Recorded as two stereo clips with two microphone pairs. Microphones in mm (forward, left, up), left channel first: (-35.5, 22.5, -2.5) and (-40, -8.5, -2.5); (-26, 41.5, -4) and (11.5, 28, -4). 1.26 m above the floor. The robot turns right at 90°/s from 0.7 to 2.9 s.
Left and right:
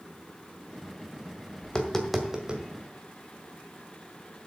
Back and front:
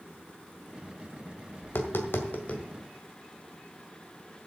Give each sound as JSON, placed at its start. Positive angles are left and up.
{"t": 1.6, "sound": "tapping", "azimuth_deg": 130, "distance_m": 1.8}